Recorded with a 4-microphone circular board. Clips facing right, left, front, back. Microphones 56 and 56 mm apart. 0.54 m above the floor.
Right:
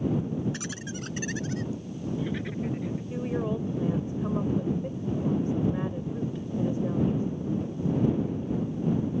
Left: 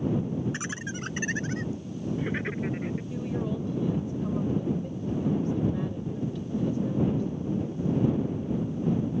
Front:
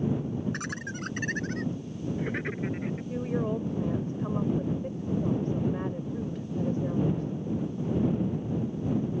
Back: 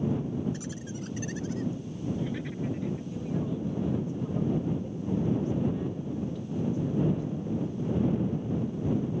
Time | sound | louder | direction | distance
0.5 | laughter | left 2 dB, front 3 dB | 25° left | ?
3.1 | a woman speaking | right 4 dB, front 3 dB | 30° right | ?